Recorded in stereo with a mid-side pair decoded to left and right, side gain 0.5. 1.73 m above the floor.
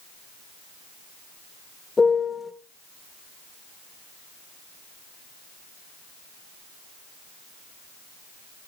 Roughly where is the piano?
Ahead left.